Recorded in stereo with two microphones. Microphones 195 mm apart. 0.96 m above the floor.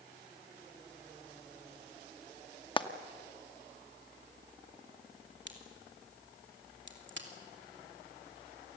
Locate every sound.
2.8 s frying: 25° left (ahead or behind), 0.9 m
5.5 s a crack: 70° right (ahead or behind), 2.5 m